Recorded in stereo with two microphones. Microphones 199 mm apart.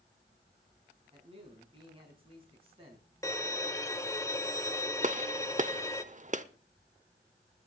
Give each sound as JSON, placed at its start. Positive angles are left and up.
{"t": 1.1, "sound": "a man speaking", "side_deg": -30, "distance_m": 4.5}
{"t": 3.2, "sound": "a violin", "side_deg": 15, "distance_m": 0.7}
{"t": 5.0, "sound": "a gunshot", "side_deg": -40, "distance_m": 0.7}